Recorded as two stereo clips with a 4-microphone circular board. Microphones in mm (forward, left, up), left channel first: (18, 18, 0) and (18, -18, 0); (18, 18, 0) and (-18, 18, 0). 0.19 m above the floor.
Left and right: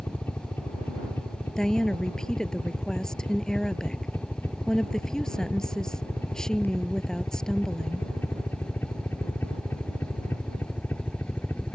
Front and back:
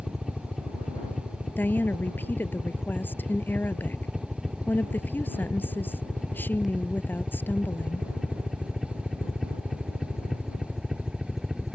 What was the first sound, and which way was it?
A helicopter, 90° left.